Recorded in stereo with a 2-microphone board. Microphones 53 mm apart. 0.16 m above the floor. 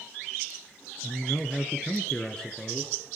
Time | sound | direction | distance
1.0 | a man speaking | 20° left (ahead or behind) | 1.6 m